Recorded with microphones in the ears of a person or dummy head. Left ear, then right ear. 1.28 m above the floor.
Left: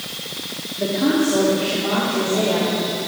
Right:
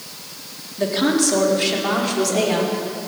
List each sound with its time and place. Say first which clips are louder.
0.8 s a woman speaking: right 1 dB; 55° right (ahead or behind), 3 m; by 2.8 s 60° right (ahead or behind), 4.5 m